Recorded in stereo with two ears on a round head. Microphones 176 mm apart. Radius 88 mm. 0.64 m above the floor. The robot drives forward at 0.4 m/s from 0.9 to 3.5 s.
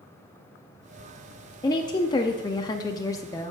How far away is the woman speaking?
About 0.6 m.